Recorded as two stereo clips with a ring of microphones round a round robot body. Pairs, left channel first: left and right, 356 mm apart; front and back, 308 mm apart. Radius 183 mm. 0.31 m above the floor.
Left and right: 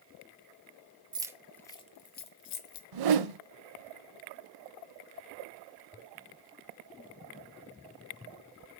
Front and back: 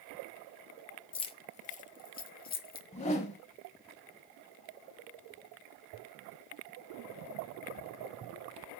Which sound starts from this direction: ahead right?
Keys jangling, at 1.1 s.